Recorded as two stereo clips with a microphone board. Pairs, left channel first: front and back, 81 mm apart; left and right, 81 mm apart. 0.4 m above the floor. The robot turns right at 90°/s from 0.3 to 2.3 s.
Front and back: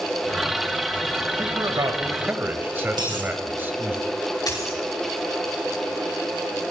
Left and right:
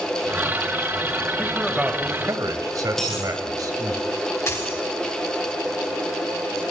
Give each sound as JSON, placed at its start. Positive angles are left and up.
{"t": 1.4, "sound": "a man speaking", "azimuth_deg": 155, "distance_m": 1.9}
{"t": 3.0, "sound": "a dropped coin", "azimuth_deg": 175, "distance_m": 6.5}
{"t": 4.5, "sound": "a dropped coin", "azimuth_deg": 40, "distance_m": 7.5}